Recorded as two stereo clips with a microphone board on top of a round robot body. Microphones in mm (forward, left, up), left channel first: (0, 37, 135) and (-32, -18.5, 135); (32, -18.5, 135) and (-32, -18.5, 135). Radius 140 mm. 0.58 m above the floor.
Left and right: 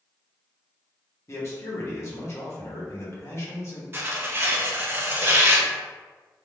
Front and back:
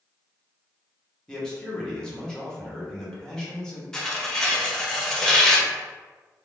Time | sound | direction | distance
1.3 | a man speaking | 75° left | 1.1 m
3.9 | tearing paper | 75° right | 0.8 m